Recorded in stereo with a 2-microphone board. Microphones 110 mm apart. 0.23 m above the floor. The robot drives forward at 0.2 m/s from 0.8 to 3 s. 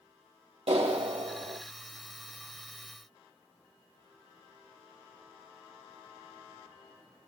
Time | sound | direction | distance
0.7 | a clap | 65° right (ahead or behind) | 8 m